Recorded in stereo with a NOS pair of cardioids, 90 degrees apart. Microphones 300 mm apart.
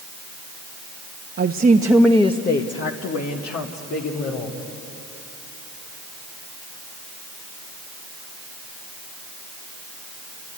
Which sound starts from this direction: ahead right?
A woman speaking, at 1.4 s.